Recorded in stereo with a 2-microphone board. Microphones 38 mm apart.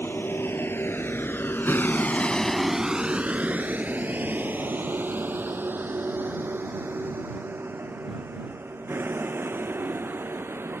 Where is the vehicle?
80° left; by 10.8 s 65° right (ahead or behind).